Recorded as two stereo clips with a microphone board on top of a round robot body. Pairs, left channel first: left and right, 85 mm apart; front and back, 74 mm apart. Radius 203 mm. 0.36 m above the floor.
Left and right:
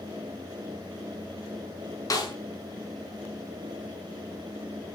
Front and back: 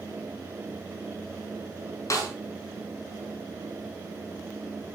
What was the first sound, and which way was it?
A snare drum, 45° left.